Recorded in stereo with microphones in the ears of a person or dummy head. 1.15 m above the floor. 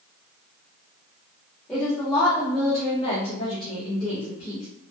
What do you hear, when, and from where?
1.7 s a woman speaking: 10° left (ahead or behind), 1.1 m; by 4.7 s 60° left (ahead or behind), 2 m